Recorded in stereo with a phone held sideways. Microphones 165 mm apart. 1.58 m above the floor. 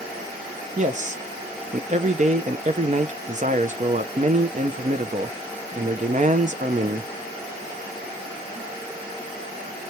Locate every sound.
0.8 s a man speaking: 45° right (ahead or behind), 0.6 m